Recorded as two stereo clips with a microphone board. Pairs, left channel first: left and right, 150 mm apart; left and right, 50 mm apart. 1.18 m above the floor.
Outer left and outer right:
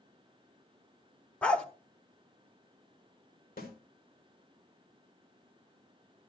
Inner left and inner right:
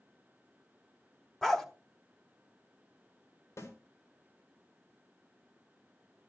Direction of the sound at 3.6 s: 85° left.